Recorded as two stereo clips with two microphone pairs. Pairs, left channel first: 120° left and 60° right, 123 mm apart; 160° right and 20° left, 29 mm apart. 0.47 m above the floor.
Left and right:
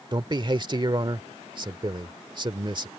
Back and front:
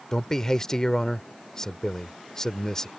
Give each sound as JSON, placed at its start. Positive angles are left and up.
{"t": 0.1, "sound": "a man speaking", "azimuth_deg": -100}